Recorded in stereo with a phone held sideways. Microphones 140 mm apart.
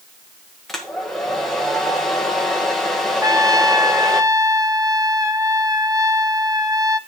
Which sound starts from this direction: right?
A trumpet, at 3.2 s.